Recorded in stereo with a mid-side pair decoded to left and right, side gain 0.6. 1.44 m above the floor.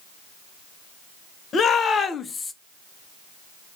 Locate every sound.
1.5 s a shout: 40° left, 1.0 m; by 2.5 s 20° left, 0.5 m